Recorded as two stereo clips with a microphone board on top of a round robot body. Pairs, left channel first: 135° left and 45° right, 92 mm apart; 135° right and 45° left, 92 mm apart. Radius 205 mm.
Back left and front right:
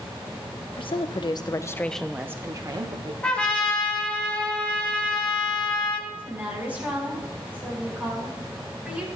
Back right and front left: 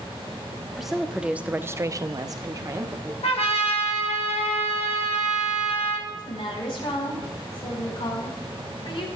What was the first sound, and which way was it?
A woman speaking, 135° left.